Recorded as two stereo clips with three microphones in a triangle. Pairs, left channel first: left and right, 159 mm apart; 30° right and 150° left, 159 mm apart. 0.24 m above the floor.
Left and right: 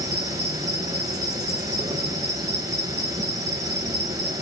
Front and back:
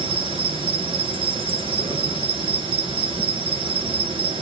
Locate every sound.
0.0 s an insect: 155° right, 1.8 m